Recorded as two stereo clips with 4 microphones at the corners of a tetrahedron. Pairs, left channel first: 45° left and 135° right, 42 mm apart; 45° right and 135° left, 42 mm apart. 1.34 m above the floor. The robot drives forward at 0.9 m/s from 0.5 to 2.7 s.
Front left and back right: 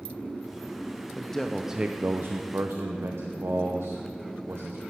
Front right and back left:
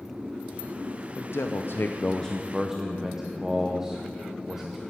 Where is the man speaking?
30° right, 0.9 m; by 4.8 s 145° right, 0.8 m.